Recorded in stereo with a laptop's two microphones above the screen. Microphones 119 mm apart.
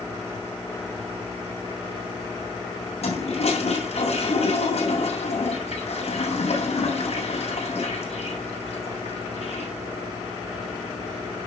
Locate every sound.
3.0 s a toilet flushing: 60° left (ahead or behind), 7.5 m